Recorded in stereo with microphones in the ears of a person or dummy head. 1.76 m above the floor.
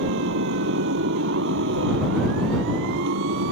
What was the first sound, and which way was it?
A motorcycle, 60° right (ahead or behind).